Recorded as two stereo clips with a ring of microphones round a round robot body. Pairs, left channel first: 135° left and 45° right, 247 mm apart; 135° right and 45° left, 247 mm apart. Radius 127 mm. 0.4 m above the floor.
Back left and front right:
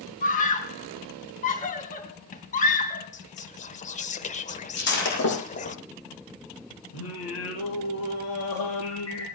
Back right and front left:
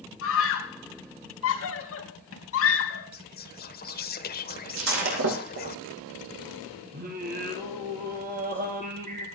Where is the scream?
165° right, 3.5 m.